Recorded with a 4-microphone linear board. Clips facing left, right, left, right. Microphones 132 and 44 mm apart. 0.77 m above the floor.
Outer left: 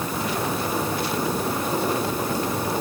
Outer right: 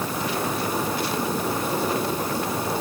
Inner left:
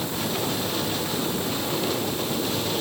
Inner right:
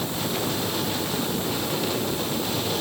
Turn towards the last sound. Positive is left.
No sound to turn to.